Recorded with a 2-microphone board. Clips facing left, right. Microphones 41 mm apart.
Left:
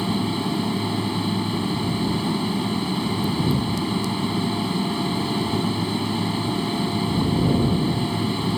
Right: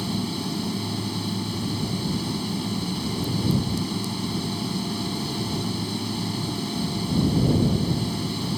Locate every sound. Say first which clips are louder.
0.0 s an aircraft: left 5 dB; 25° left (ahead or behind)